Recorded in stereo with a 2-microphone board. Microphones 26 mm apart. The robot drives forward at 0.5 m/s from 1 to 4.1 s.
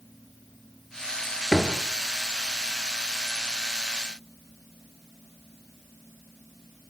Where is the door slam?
Centre (ahead or behind), 2.5 m.